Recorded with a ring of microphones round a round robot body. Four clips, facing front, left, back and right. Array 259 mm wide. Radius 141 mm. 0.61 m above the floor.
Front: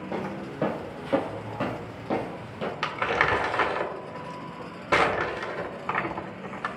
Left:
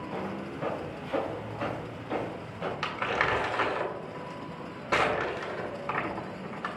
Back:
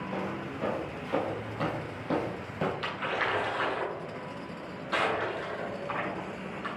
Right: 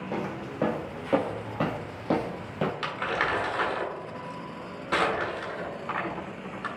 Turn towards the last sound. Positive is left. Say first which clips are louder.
# even, front 6 dB
turn(degrees=5)